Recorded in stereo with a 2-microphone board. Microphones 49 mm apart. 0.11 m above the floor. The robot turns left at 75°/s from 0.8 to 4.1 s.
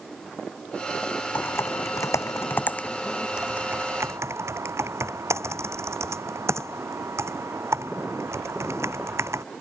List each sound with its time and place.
1.4 s typing on a keyboard: 40° left (ahead or behind); by 9.4 s 65° right (ahead or behind)